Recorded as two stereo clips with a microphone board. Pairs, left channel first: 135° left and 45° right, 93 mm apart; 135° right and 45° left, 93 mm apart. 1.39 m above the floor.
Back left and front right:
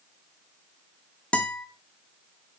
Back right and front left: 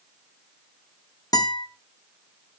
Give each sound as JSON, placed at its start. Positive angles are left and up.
{"t": 1.3, "sound": "a guitar", "azimuth_deg": -150, "distance_m": 1.1}